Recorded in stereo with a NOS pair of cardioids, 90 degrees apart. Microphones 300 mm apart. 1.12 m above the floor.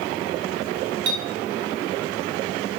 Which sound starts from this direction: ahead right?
A clink, at 1.1 s.